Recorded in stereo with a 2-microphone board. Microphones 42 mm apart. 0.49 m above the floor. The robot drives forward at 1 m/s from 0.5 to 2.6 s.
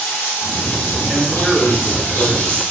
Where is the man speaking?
5° right (ahead or behind), 1.1 m; by 2.6 s 10° right (ahead or behind), 1.0 m.